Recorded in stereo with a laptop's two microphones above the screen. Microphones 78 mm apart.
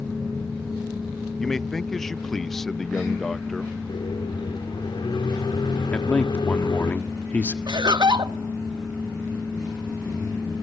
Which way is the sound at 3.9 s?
80° left.